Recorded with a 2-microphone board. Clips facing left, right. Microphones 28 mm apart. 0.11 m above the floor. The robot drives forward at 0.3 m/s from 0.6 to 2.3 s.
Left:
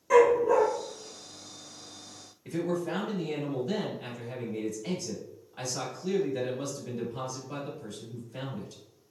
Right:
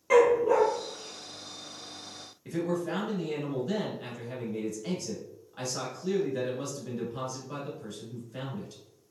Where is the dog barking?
40° right (ahead or behind), 0.8 m.